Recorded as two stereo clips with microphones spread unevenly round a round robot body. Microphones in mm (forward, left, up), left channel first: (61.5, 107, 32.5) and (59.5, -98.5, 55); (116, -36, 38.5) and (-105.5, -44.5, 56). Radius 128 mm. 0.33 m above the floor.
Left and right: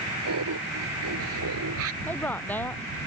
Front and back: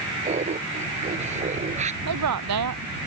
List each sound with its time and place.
0.2 s laughter: 120° right
2.0 s a woman speaking: 170° left